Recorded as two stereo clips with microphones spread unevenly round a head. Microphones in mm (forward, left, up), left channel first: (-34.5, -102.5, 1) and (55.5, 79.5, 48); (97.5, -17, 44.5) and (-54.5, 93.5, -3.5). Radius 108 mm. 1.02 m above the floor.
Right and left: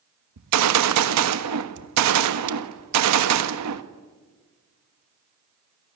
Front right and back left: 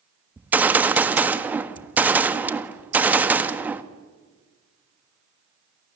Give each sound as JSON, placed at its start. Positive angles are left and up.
{"t": 0.4, "sound": "a gunshot", "azimuth_deg": 65, "distance_m": 1.4}